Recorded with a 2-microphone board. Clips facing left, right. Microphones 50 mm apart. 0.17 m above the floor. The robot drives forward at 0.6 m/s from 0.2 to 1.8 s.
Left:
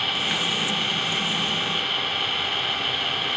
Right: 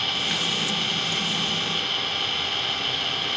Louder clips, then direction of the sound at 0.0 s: Left 1 dB; 15° left (ahead or behind).